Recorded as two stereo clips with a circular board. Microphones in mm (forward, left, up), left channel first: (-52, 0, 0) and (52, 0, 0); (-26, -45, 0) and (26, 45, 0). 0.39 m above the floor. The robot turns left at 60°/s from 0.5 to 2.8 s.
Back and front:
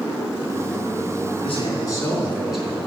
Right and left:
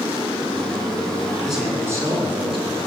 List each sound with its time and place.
1.4 s a man speaking: 155° left, 4 m; by 2.8 s 75° left, 4 m